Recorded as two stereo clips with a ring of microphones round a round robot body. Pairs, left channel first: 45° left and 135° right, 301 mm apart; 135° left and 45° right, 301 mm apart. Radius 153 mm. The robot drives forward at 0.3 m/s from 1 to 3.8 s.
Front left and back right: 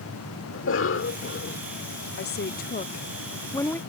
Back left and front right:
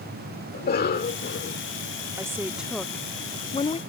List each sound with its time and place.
0.5 s a cough: 80° left; by 1.6 s 90° left
2.2 s a woman speaking: 30° left; by 3.8 s 115° left